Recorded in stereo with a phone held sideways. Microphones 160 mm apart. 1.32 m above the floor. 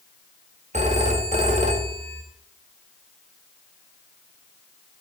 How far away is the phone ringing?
About 1.8 m.